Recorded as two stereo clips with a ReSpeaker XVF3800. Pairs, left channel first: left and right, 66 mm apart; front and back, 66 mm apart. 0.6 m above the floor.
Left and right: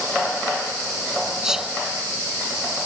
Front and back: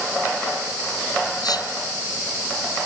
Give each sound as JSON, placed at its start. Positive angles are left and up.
{"t": 1.4, "sound": "whispering", "azimuth_deg": -10}